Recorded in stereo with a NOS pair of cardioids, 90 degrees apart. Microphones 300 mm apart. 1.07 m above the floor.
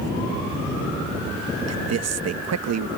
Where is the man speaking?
60° right.